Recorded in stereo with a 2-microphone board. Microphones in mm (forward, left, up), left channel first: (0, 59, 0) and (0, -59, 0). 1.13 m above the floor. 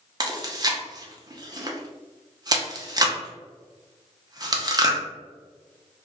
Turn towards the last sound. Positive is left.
turn(degrees=-35)  # may be behind; listen again after turning